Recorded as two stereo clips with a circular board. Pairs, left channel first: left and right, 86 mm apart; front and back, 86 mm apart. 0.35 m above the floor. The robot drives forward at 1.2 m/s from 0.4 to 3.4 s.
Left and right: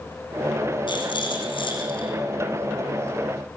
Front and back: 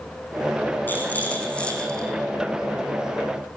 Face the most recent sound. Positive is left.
turn(degrees=100)